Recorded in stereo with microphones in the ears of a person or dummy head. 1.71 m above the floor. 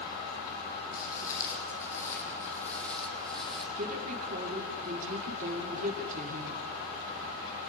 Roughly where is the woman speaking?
Right.